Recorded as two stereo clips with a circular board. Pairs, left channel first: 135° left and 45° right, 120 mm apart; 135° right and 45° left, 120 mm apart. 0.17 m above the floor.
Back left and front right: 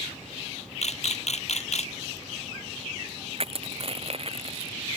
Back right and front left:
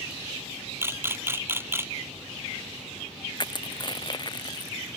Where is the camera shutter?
115° left.